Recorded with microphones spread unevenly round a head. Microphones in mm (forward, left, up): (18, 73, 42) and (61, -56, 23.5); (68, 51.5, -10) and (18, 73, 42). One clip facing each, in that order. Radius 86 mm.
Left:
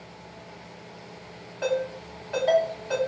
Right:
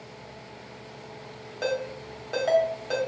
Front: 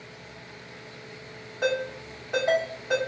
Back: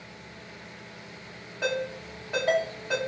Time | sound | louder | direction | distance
1.6 | a ringtone | left 2 dB, front 3 dB | 130° right | 1.0 m